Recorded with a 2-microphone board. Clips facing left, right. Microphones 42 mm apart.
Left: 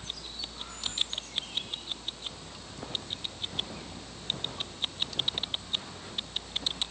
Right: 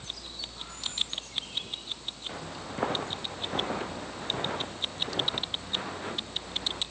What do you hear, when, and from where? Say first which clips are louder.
2.3 s footsteps: right 7 dB; 55° right (ahead or behind); by 6.8 s 40° right (ahead or behind)